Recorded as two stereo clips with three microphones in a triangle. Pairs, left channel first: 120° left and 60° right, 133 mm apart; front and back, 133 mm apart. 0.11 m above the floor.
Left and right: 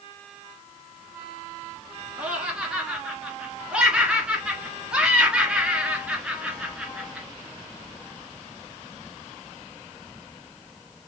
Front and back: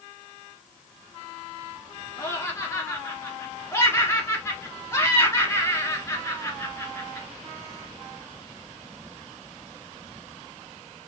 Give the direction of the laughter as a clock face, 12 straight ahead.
12 o'clock.